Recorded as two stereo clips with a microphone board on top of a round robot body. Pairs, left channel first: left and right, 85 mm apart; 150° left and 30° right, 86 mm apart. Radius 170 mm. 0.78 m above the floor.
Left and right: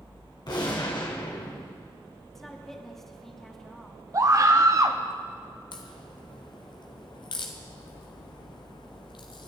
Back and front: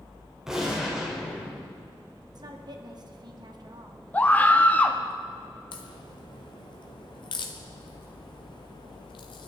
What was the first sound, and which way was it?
A gunshot, 55° left.